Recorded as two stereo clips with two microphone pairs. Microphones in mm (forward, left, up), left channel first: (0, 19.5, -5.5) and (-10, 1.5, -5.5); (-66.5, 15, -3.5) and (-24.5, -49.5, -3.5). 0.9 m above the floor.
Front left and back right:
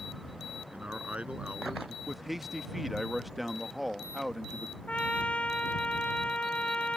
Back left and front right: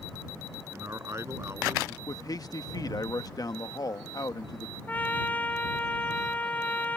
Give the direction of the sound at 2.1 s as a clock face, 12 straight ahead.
7 o'clock.